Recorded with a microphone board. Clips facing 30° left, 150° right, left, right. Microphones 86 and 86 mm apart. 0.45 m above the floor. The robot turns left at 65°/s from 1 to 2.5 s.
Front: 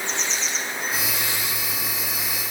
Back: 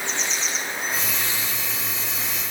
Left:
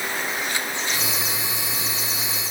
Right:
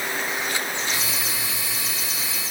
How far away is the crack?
No crack in this recording.